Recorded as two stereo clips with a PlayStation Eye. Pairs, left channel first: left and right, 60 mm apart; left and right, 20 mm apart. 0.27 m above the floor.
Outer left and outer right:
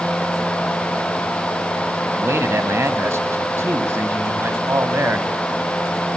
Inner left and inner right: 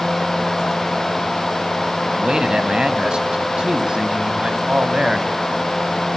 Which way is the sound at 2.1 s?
50° right (ahead or behind).